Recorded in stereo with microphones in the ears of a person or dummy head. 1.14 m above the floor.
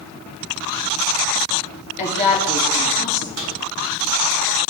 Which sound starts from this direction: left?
A woman speaking, at 2.0 s.